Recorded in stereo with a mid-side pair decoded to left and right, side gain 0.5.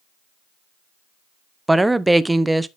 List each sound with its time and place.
1.7 s a woman speaking: 10° right, 0.6 m